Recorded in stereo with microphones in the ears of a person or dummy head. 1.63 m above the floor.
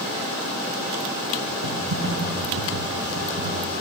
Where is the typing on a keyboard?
65° right (ahead or behind), 1.5 m.